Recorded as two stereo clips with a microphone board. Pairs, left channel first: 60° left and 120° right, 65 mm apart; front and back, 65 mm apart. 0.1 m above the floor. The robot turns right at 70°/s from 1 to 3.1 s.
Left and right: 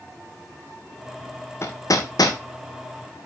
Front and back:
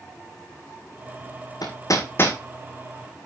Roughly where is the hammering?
Ahead.